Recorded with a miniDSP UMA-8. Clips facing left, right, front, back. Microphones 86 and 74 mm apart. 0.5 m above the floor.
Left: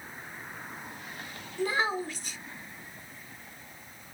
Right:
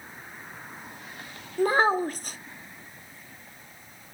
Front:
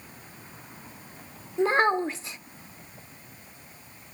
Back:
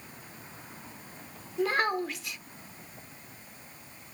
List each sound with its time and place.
1.6 s a child speaking: 55° right, 0.6 m